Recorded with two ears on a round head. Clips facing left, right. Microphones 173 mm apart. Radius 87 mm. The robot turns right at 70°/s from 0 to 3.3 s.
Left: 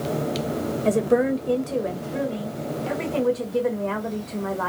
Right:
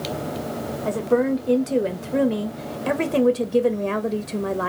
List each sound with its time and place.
0.8 s a woman speaking: 150° left, 0.7 m; by 4.7 s 40° right, 0.7 m